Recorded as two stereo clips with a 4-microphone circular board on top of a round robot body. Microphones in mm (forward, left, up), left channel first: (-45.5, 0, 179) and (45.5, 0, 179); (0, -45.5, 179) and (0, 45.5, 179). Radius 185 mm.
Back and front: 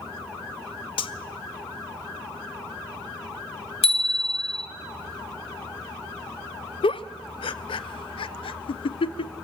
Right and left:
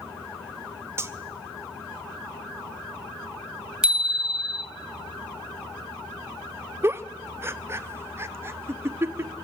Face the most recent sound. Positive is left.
turn(degrees=155)